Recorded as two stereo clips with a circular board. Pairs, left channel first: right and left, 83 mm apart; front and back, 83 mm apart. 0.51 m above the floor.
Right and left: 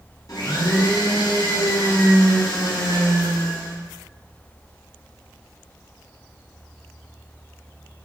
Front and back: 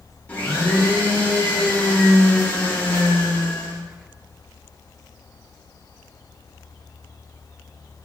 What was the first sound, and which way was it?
A blender, 70° right.